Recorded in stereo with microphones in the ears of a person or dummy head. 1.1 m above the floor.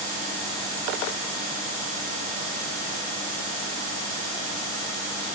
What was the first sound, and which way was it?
Only background noise.